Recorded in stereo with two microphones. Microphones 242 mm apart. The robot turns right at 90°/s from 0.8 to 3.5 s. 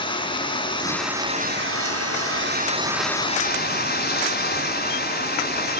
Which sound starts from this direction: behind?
Running water, at 0.0 s.